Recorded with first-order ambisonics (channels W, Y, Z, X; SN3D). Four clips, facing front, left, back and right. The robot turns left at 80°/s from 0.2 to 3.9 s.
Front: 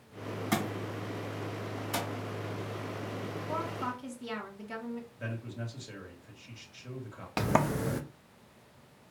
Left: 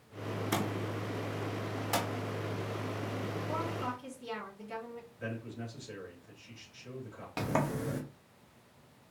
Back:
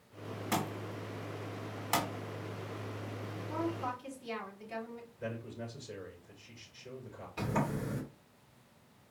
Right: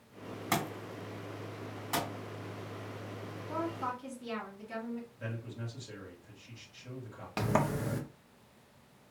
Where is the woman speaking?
35° left, 2.5 m; by 5.1 s straight ahead, 2.5 m.